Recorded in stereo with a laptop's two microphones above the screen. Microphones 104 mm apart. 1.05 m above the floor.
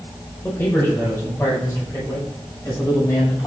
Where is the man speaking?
20° left (ahead or behind), 5 m; by 3.5 s 30° left (ahead or behind), 7.5 m.